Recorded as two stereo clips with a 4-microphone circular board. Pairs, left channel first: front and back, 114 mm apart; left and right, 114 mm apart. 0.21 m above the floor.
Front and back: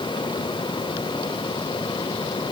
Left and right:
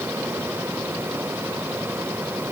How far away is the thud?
I don't hear a thud.